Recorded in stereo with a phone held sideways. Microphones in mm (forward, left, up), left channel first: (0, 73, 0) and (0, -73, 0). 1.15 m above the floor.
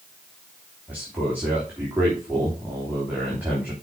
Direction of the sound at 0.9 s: 10° right (ahead or behind).